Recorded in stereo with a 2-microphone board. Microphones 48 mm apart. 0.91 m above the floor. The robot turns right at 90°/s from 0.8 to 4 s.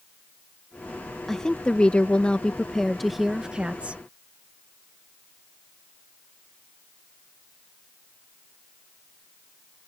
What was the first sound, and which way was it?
A woman speaking, 10° left (ahead or behind).